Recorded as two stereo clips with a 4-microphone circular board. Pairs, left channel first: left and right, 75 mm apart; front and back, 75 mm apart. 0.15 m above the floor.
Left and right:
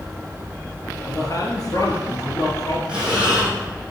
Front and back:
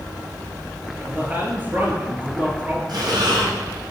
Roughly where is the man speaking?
Behind left.